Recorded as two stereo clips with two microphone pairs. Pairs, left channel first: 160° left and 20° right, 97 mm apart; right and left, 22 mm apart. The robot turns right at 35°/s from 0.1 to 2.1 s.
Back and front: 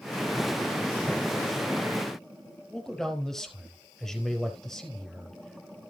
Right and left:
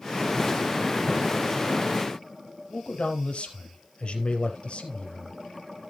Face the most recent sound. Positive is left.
turn(degrees=-115)